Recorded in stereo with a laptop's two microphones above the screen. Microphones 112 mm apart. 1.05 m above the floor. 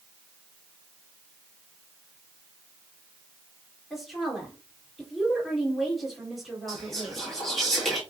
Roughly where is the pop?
No pop in this recording.